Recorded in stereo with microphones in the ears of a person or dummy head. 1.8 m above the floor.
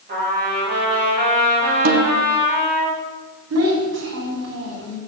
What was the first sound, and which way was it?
A trumpet, 40° right (ahead or behind).